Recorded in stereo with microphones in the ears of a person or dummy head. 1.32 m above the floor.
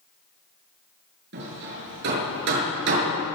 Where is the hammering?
70° right (ahead or behind), 7 m.